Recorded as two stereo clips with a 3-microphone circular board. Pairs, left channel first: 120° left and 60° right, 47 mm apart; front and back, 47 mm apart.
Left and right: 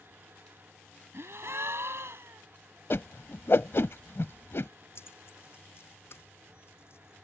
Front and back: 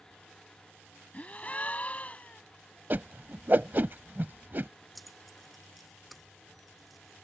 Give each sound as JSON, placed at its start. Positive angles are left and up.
{"t": 1.1, "sound": "a gasp", "azimuth_deg": -60}
{"t": 2.9, "sound": "a whoosh", "azimuth_deg": 140}
{"t": 5.0, "sound": "keys jangling", "azimuth_deg": 90}